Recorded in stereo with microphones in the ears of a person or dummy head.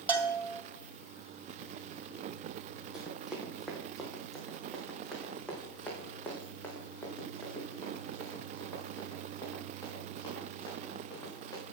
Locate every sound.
0.1 s a bell: 10° right (ahead or behind), 1.8 m
2.9 s running footsteps: 5° right (ahead or behind), 3 m; by 11.6 s 20° left (ahead or behind), 7 m